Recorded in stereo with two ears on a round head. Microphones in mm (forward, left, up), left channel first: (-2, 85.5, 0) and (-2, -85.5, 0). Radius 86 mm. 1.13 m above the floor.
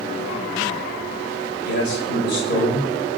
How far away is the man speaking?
About 5.5 m.